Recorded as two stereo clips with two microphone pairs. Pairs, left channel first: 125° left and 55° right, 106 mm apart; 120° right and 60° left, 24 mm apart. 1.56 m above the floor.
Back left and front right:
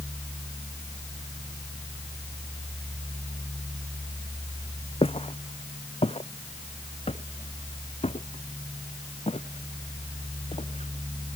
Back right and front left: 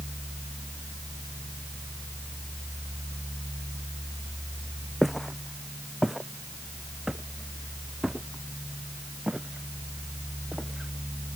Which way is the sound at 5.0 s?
140° left.